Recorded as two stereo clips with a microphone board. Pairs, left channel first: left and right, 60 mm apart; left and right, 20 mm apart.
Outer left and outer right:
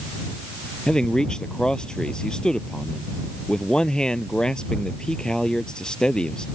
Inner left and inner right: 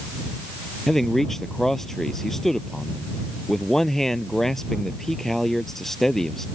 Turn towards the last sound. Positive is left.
turn(degrees=15)  # may be behind; listen again after turning